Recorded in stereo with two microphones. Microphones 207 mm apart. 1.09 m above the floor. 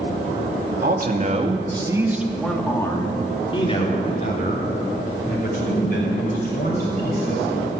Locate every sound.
0.8 s a man speaking: 50° right (ahead or behind), 2.5 m; by 7.4 s 50° left (ahead or behind), 8.5 m